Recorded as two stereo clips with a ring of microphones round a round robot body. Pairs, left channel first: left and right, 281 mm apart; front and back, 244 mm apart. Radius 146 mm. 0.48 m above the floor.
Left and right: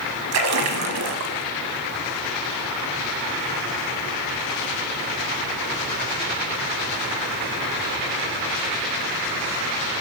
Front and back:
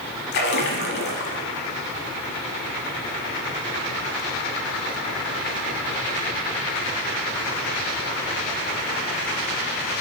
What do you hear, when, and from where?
0.3 s a splash: 55° right, 0.8 m